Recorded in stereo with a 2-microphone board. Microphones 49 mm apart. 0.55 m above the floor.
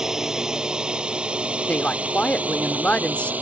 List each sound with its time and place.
0.0 s a drone: 10° right (ahead or behind); by 3.4 s 30° right (ahead or behind)
1.7 s a woman speaking: 30° left (ahead or behind)